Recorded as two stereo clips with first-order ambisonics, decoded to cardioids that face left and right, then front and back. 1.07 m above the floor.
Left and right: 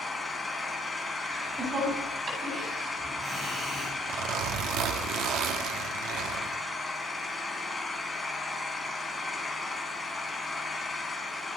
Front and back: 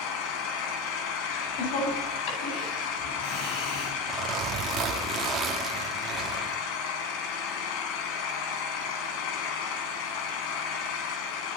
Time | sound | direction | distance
0.0 | an engine running | 5° left | 4 m
1.3 | laughter | 25° right | 9.5 m
4.1 | a zipper | 120° right | 2 m